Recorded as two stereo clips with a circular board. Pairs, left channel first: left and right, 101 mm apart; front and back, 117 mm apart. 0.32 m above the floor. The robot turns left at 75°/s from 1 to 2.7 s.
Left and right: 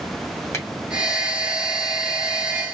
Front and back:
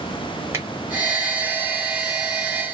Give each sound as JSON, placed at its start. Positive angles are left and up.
{"t": 0.5, "sound": "a finger snap", "azimuth_deg": 125, "distance_m": 1.3}